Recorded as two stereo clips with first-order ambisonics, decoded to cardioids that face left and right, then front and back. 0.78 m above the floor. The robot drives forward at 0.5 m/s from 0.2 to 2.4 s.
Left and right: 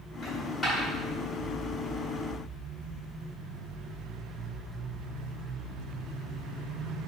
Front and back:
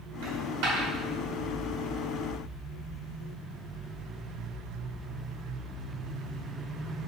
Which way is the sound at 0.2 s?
165° left.